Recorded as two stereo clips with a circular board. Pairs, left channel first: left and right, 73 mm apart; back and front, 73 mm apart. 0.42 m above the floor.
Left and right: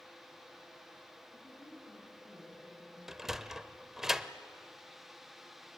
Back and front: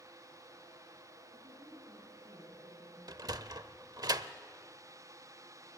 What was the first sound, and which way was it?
A woman speaking, 35° left.